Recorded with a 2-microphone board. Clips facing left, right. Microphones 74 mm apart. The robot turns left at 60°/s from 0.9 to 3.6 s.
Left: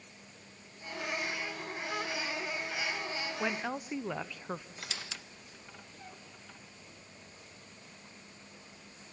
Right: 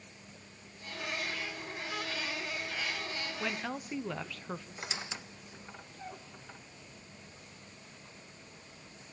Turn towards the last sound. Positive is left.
turn(degrees=-25)  # may be behind; listen again after turning